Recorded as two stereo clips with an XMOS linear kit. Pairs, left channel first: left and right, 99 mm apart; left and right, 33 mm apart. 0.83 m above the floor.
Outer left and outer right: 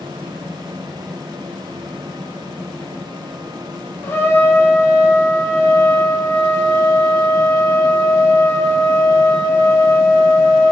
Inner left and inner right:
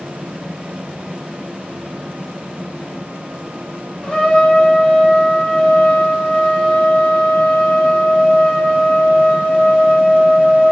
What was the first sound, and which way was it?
A trumpet, 25° left (ahead or behind).